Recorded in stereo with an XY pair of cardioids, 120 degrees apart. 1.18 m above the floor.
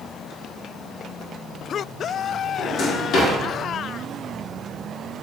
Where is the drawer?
65° left, 1.4 m.